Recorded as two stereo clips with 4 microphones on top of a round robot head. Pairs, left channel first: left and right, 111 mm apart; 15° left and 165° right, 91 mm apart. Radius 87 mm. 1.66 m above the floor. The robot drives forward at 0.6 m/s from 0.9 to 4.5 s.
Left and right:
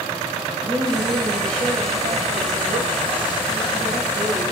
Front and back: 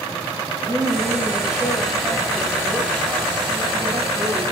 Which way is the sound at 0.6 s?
55° right.